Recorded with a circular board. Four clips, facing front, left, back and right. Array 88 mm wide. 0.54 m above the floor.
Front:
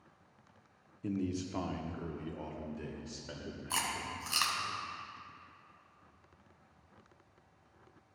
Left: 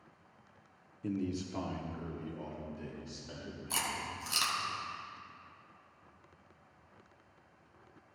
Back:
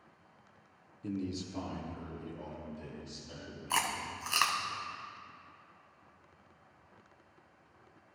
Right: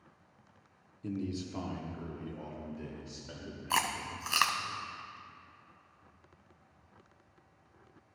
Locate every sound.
1.0 s a man speaking: 50° left, 0.8 m; by 4.7 s 20° right, 2 m
3.7 s chewing: 115° right, 0.7 m